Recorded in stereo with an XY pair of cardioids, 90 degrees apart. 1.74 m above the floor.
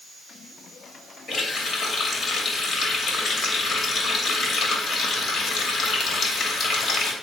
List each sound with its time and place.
1.3 s a running tap: 55° left, 2.5 m